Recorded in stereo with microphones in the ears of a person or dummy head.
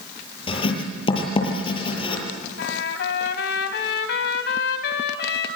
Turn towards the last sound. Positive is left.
turn(degrees=65)  # may be behind; listen again after turning